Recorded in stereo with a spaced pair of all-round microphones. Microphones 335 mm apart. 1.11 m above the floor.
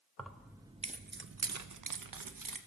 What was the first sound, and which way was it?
Keys jangling, 5° left (ahead or behind).